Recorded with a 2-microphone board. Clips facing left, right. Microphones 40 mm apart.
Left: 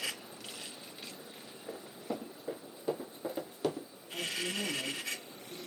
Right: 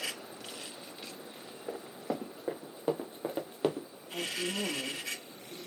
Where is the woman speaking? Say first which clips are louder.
Right 1 dB; 55° right (ahead or behind), 1.8 m.